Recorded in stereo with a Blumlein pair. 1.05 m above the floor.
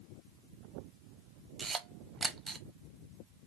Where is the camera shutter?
15° right, 0.7 m.